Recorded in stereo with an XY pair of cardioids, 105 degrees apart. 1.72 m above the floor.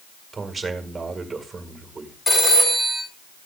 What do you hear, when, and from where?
0.3 s a man speaking: 25° right, 1.8 m
2.3 s a phone ringing: 20° left, 5 m